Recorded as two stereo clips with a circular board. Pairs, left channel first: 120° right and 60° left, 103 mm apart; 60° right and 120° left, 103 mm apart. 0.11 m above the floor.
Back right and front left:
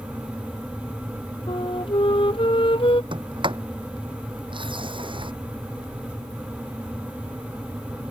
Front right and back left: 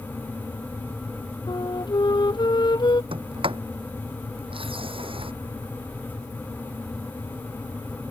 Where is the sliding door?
95° left.